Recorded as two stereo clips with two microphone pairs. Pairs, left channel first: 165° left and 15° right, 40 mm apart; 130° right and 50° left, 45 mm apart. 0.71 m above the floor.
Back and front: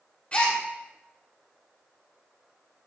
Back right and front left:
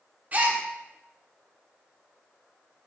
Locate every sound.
0.3 s a gasp: 100° left, 1.1 m